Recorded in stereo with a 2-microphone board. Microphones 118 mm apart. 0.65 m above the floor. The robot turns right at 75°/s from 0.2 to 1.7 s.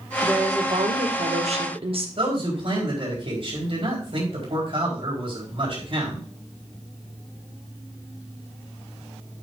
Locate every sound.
0.2 s a woman speaking: 170° right, 1.4 m; by 2.1 s 55° right, 1.4 m
2.2 s a man speaking: 50° right (ahead or behind), 4 m